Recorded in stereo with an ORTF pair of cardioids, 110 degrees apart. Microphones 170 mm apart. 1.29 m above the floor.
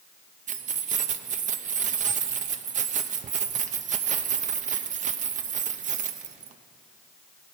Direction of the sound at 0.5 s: 45° right.